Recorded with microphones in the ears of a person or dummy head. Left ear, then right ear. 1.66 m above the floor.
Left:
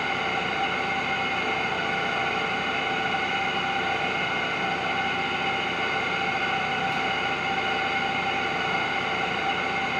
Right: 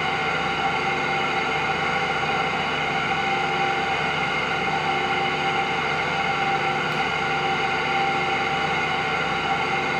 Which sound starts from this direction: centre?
An engine running, at 0.0 s.